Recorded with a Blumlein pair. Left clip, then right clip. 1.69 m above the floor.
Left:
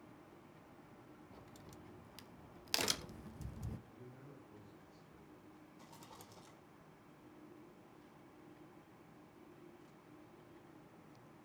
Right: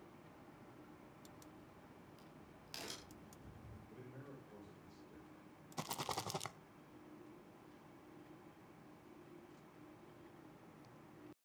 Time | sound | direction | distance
1.3 | a crack | 35° left | 1.1 m
3.9 | a man speaking | 65° right | 7 m
5.8 | a rattle | 45° right | 0.8 m